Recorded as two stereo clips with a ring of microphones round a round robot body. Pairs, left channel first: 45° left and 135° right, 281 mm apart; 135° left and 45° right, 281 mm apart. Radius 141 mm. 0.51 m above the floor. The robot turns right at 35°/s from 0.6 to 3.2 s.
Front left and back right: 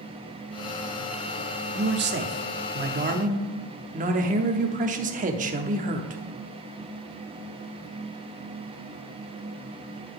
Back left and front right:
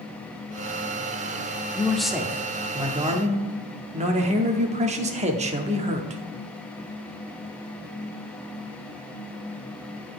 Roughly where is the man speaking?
Behind right.